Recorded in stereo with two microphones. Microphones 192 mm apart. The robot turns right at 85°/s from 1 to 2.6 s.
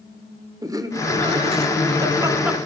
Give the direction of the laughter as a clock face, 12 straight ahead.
5 o'clock.